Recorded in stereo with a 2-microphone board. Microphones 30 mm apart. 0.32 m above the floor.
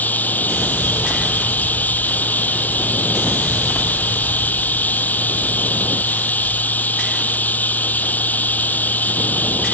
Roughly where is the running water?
Left.